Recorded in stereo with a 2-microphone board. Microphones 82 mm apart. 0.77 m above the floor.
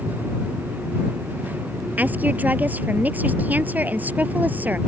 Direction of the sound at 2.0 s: 20° right (ahead or behind).